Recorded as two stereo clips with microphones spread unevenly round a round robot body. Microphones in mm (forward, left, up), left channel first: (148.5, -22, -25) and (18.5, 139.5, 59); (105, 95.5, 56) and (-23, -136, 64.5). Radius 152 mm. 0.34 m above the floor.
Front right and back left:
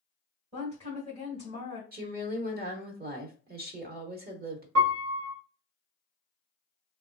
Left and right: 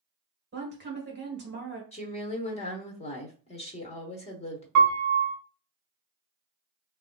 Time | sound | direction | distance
0.5 | a woman speaking | 150° right | 1.5 m
1.9 | a woman speaking | 90° left | 1.0 m
4.8 | a piano | 155° right | 0.9 m